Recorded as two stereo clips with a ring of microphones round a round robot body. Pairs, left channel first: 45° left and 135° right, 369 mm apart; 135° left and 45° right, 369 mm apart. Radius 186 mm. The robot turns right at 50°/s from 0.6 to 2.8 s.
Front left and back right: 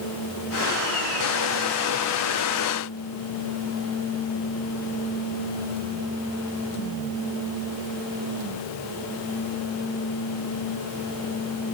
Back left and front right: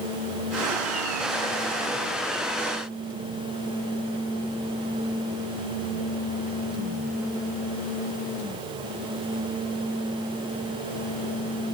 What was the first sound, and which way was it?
Only background noise.